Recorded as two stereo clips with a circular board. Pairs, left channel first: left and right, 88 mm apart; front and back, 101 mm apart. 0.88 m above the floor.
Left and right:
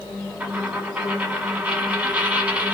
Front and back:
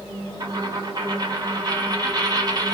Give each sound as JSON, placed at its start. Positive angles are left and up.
{"t": 0.4, "sound": "a dropped coin", "azimuth_deg": -160, "distance_m": 1.0}